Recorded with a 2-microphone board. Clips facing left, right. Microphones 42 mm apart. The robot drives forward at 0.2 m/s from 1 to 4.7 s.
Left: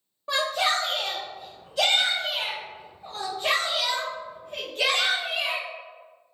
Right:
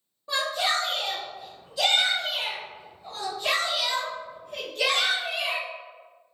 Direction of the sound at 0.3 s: 60° left (ahead or behind).